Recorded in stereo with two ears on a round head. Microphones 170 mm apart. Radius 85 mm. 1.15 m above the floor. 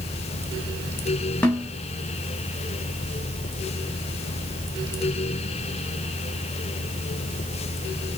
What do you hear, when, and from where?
1.4 s a snare drum: 10° left (ahead or behind), 0.7 m